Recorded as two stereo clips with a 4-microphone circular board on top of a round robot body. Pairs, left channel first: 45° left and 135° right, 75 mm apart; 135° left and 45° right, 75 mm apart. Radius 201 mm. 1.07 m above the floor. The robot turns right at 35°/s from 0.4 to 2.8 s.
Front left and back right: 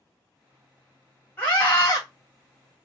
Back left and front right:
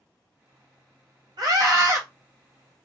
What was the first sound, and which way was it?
A scream, 15° right.